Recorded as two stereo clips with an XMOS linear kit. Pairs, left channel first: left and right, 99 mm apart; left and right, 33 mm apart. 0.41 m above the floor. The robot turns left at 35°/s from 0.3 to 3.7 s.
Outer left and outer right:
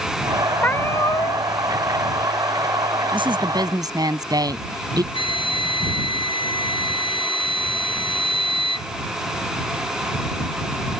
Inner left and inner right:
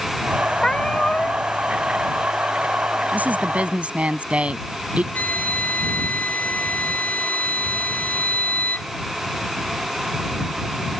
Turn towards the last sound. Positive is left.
turn(degrees=55)  # may be behind; listen again after turning